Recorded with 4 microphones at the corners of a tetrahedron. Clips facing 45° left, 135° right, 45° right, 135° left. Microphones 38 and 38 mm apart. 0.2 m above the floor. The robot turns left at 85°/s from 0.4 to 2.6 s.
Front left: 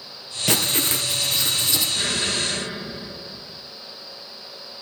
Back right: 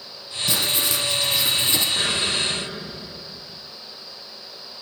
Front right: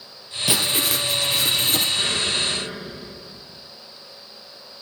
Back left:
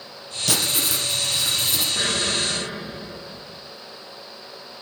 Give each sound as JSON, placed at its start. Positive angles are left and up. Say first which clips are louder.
{"t": 0.5, "sound": "writing", "louder": "front left 1 dB, front right 2 dB", "azimuth_deg": 25, "distance_m": 3.0}
{"t": 1.9, "sound": "an explosion", "louder": "back right 1 dB, even", "azimuth_deg": 165, "distance_m": 8.0}